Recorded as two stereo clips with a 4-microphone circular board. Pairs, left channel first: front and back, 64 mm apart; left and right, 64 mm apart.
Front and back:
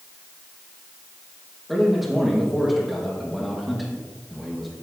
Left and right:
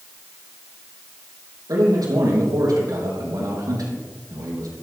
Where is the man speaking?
90° right, 5 m.